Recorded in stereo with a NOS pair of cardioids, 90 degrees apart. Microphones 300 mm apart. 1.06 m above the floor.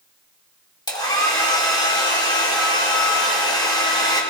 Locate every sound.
0.9 s a hair dryer: 15° left, 4 m